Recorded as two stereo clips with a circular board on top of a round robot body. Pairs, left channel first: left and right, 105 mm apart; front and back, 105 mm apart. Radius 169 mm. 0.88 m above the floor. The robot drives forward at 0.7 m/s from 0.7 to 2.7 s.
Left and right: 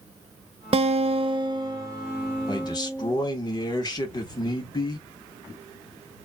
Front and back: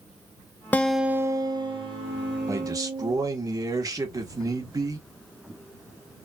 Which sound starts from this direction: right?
A guitar, at 0.7 s.